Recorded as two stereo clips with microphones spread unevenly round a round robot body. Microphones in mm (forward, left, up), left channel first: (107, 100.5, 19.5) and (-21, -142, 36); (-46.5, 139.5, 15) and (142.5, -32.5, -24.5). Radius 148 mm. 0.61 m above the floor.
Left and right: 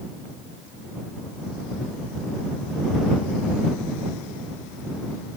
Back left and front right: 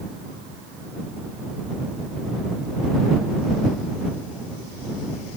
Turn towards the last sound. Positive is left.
No sound to turn to.